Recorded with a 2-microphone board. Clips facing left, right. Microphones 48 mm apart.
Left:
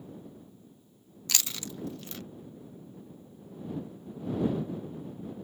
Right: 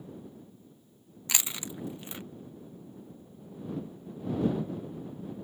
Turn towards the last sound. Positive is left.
turn(degrees=-20)  # may be behind; listen again after turning